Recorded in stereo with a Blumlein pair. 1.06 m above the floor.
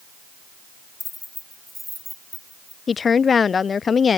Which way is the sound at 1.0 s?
10° left.